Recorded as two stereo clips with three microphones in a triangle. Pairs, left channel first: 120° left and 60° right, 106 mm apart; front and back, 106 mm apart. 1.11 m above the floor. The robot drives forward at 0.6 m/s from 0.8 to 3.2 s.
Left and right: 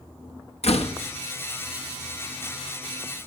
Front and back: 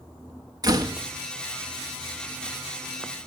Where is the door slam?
130° left, 1.1 m.